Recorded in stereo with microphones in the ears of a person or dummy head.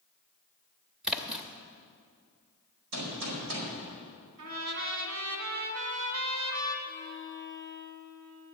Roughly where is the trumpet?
Right.